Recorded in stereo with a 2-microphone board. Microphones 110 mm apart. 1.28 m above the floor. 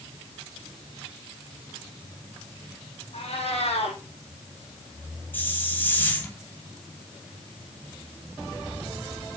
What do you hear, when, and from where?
3.1 s a cat meowing: 65° left (ahead or behind), 6.5 m
5.3 s a hiss: 15° left (ahead or behind), 2.5 m